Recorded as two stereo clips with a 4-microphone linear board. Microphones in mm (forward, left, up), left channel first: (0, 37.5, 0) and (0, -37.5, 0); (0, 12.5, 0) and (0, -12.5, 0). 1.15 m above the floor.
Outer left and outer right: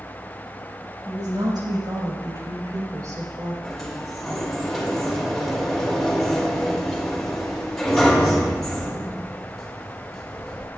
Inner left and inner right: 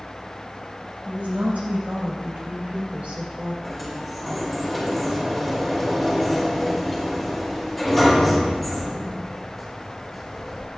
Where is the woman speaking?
75° right (ahead or behind), 6 m; by 3.5 s 45° right (ahead or behind), 4.5 m.